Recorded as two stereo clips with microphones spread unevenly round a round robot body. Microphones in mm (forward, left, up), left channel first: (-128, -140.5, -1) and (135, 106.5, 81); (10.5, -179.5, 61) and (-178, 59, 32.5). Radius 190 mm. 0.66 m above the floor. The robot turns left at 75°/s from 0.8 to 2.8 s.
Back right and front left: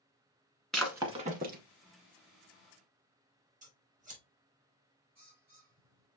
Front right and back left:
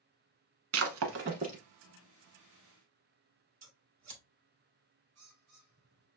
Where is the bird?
105° left, 4 m.